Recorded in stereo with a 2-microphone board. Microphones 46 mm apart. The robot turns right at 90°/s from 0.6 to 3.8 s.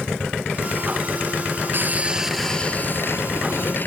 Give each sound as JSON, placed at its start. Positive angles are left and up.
{"t": 1.7, "sound": "sawing", "azimuth_deg": -55}